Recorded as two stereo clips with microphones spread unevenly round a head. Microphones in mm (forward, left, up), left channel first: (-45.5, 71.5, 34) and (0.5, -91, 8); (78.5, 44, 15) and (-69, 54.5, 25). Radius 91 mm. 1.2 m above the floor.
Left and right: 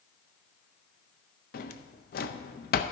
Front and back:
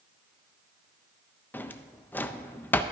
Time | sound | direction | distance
1.5 | a drawer | 75° left | 0.5 m